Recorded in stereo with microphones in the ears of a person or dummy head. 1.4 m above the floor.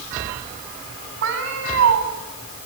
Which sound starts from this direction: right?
A cat meowing, at 1.2 s.